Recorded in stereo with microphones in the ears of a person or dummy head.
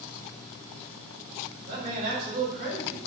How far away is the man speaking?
About 2 m.